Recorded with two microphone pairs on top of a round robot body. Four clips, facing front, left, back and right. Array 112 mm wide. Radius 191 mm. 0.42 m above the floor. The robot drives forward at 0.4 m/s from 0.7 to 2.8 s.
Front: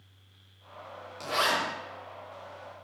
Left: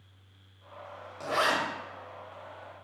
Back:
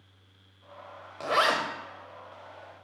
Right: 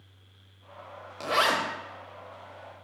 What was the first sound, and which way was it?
A zipper, 150° right.